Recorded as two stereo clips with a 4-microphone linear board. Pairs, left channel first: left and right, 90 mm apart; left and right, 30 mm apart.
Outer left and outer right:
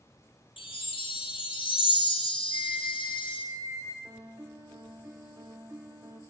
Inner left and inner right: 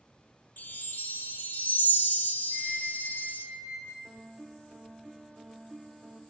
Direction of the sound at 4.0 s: 30° right (ahead or behind).